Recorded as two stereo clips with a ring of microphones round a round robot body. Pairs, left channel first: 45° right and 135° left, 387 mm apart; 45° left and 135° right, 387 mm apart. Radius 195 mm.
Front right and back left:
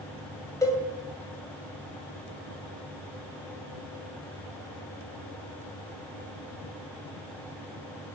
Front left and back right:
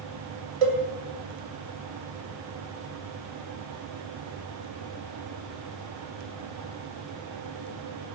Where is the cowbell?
130° right, 1.9 m.